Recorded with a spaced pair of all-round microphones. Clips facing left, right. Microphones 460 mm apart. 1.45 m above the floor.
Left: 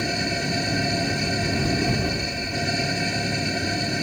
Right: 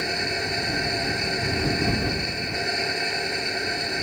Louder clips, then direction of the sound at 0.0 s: Left 3 dB; 50° left (ahead or behind).